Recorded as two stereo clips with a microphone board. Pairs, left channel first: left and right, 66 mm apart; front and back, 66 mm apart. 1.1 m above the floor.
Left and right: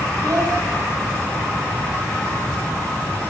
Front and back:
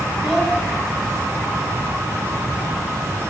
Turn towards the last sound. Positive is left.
turn(degrees=-95)